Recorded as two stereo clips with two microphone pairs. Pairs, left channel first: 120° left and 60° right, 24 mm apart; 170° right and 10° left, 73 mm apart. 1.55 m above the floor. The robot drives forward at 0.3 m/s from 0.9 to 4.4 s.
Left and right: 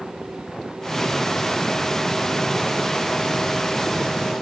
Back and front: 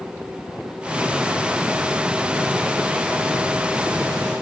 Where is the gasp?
I don't hear a gasp.